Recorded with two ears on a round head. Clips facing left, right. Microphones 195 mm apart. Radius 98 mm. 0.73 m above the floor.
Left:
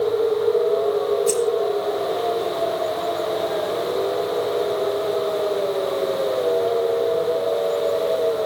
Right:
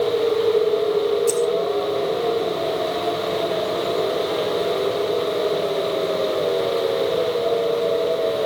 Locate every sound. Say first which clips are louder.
1.3 s keys jangling: even; 5° right (ahead or behind), 4 m